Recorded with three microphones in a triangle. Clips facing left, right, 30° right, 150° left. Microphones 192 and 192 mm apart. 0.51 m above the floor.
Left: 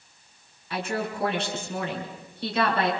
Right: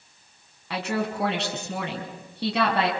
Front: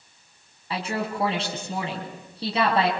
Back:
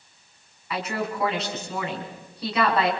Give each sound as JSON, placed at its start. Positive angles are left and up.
{"t": 0.7, "sound": "a woman speaking", "azimuth_deg": -90, "distance_m": 5.0}